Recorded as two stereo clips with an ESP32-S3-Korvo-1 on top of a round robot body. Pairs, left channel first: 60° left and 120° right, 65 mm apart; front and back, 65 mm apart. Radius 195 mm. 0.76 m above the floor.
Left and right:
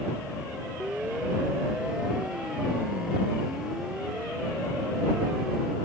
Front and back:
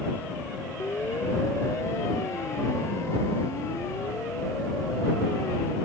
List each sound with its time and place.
0.8 s a siren: 45° right; by 5.8 s 35° right